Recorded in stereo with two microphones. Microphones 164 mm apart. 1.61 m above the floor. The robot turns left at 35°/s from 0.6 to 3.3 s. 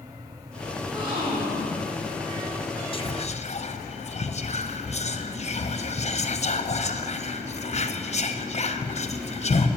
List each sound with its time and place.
0.8 s a gasp: 20° right, 2.5 m; by 1.9 s 60° right, 2.5 m
2.9 s whispering: 30° left (ahead or behind), 0.8 m; by 9.7 s 40° left (ahead or behind), 0.8 m